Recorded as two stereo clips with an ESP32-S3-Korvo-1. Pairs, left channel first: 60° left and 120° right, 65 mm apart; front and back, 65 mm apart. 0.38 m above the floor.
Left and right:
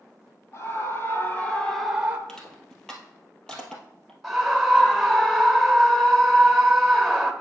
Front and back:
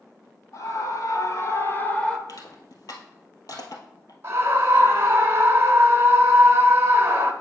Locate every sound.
0.5 s a scream: 25° left, 2.0 m; by 2.2 s 75° right, 0.9 m
2.3 s crushing: 20° right, 1.7 m
4.2 s a scream: 150° left, 1.1 m